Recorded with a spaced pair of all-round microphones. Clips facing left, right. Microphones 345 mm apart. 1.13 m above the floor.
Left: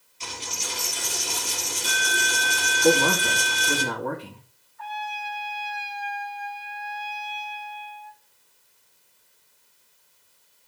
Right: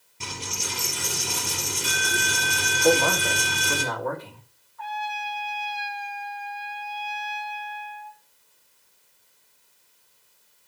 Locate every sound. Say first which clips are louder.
0.2 s a dropped coin: right 2 dB; 70° right (ahead or behind), 4.5 m
2.8 s a man speaking: left 1 dB; 40° left (ahead or behind), 2 m
4.8 s a trumpet: right 2 dB; 85° right, 4 m